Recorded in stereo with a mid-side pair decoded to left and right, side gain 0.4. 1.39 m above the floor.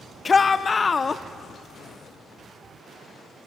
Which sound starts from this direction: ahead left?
A shout, at 0.2 s.